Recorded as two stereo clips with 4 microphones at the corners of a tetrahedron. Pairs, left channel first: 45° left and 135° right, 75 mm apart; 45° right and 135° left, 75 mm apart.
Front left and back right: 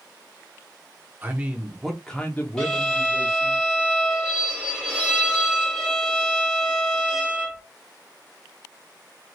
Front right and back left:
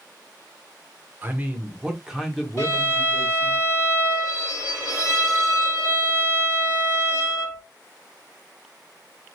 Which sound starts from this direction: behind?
A man speaking, at 1.2 s.